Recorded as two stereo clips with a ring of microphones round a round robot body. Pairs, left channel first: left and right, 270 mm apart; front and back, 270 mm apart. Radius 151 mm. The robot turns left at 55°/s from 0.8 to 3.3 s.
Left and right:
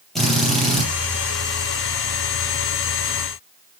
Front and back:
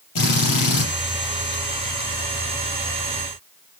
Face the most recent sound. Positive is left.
turn(degrees=-135)